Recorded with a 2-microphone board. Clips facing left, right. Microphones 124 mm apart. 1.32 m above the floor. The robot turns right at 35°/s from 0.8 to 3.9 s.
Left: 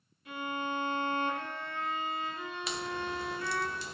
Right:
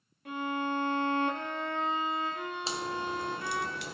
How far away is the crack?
About 0.8 m.